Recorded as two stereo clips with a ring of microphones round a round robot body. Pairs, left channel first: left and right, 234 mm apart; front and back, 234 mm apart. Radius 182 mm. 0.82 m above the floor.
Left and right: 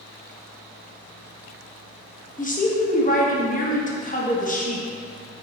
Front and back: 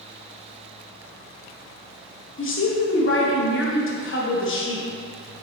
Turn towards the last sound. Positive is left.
turn(degrees=35)